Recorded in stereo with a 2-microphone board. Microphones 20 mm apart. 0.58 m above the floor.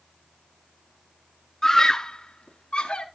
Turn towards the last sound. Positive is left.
turn(degrees=55)  # may be behind; listen again after turning